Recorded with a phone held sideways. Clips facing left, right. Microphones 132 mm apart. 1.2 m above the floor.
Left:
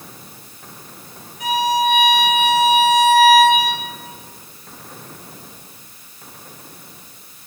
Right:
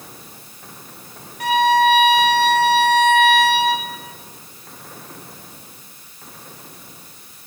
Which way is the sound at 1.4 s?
65° right (ahead or behind).